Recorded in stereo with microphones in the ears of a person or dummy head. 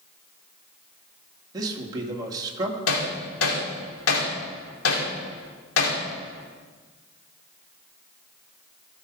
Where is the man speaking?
25° right (ahead or behind), 1.8 m.